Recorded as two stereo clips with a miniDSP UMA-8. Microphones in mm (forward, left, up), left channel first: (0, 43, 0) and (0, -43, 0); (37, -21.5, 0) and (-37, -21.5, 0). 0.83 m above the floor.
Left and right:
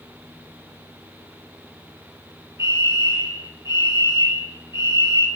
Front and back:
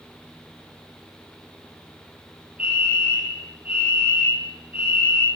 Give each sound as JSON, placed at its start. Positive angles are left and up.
{"t": 2.6, "sound": "a fire alarm", "azimuth_deg": 115, "distance_m": 4.5}